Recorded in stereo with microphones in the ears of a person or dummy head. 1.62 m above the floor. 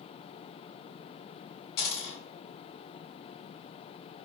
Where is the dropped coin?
45° left (ahead or behind), 1.9 m.